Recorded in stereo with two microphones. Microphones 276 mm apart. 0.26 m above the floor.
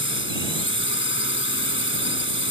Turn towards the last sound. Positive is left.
turn(degrees=45)  # may be behind; listen again after turning